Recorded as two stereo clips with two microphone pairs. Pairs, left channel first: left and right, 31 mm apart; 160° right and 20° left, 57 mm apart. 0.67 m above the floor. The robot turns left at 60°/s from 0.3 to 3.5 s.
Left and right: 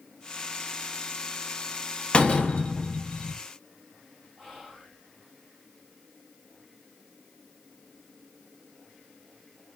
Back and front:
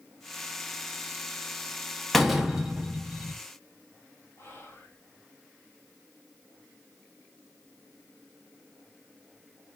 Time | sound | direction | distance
2.1 | a door slam | 115° left | 0.7 m
4.4 | whispering | straight behind | 2 m